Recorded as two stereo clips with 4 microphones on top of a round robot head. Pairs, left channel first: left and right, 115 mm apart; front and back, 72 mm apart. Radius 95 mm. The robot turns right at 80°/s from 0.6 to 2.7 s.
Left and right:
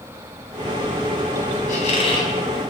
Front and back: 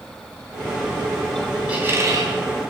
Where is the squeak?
105° left, 4 m; by 2.3 s 155° left, 4 m.